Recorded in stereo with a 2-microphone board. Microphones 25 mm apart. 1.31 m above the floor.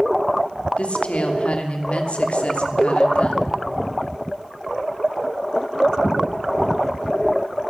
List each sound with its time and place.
0.8 s a woman speaking: 55° left (ahead or behind), 3 m